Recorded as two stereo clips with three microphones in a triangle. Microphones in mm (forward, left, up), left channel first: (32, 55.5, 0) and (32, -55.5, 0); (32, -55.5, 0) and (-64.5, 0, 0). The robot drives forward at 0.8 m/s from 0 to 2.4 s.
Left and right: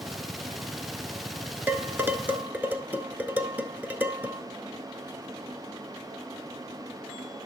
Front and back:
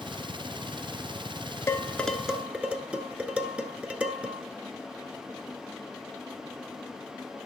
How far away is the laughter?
No laughter in this recording.